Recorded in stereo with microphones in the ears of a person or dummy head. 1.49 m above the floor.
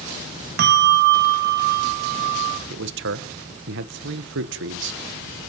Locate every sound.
0.6 s a bell: 55° right (ahead or behind), 0.9 m
2.7 s a man speaking: 65° right (ahead or behind), 1.3 m